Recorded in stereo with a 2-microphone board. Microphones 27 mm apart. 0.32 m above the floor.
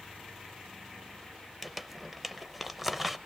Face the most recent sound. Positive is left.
turn(degrees=-10)  # may be behind; listen again after turning